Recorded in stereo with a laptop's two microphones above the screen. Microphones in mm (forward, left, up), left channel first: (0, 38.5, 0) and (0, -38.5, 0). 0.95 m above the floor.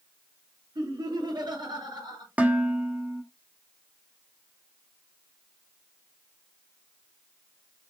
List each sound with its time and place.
0.8 s laughter: 70° right (ahead or behind), 3 m
2.4 s dishes clattering: 20° right (ahead or behind), 1.2 m